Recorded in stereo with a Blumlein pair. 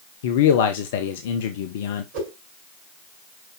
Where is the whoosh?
50° right, 6 m.